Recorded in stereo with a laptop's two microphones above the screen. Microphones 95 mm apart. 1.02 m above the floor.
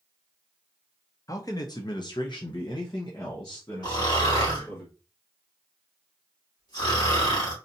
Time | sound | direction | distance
1.3 | a man speaking | 35° left (ahead or behind) | 0.8 m
3.8 | snoring | 50° left (ahead or behind) | 2 m